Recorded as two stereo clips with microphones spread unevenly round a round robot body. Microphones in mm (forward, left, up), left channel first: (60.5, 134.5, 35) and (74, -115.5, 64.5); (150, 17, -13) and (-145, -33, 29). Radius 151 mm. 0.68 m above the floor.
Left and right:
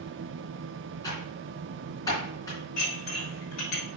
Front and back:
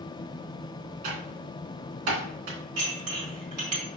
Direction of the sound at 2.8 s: 160° left.